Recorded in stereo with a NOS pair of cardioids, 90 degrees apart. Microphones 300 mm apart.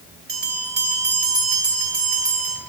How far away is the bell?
About 2.5 m.